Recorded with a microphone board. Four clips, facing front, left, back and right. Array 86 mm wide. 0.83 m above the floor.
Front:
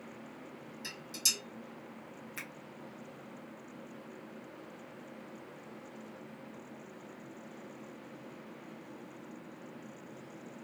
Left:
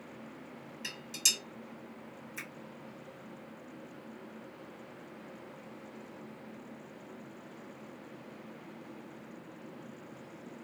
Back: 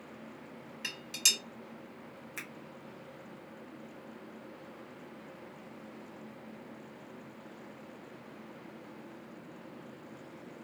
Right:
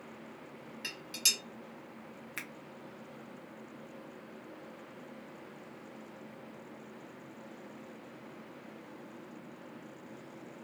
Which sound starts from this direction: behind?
Dishes clattering, at 0.8 s.